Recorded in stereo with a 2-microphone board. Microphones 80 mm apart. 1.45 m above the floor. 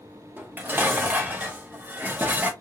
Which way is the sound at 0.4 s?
25° right (ahead or behind).